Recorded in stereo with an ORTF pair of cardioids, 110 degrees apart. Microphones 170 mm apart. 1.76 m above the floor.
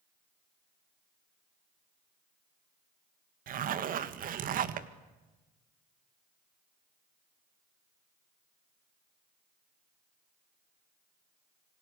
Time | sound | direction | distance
3.5 | a zipper | 55° right | 1.9 m